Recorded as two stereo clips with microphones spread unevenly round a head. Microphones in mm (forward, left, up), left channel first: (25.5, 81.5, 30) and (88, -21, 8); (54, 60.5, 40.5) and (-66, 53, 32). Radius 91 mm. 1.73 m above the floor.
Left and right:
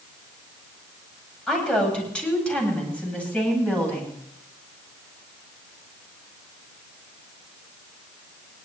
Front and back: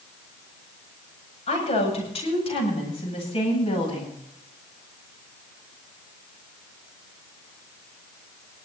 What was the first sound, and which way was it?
A woman speaking, 40° left.